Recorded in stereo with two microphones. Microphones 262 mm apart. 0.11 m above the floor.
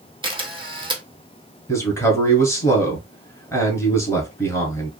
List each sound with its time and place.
0.2 s a camera shutter: 20° right (ahead or behind), 0.9 m
1.7 s a man speaking: 10° left (ahead or behind), 1.1 m